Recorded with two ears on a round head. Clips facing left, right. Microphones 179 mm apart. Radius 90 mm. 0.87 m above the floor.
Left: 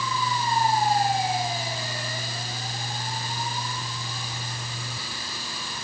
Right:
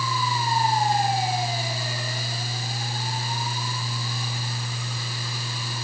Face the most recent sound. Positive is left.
No sound to turn to.